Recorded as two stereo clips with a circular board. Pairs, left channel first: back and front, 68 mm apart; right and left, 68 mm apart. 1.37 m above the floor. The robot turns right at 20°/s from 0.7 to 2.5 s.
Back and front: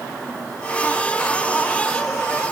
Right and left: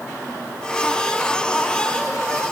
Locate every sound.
Only background noise.